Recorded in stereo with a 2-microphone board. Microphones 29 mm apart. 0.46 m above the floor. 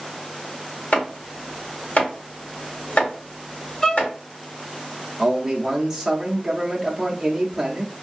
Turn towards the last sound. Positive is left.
turn(degrees=-5)  # may be behind; listen again after turning